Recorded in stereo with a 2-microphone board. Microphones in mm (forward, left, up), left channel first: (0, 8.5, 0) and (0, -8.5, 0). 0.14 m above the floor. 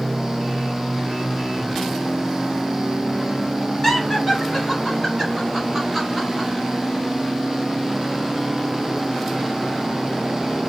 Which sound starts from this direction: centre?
Laughter, at 3.8 s.